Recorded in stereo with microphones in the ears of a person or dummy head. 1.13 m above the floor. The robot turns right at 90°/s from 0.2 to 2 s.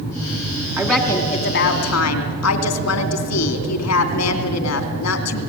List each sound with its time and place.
0.8 s a woman speaking: 10° right, 2.5 m; by 5.4 s 100° left, 2.5 m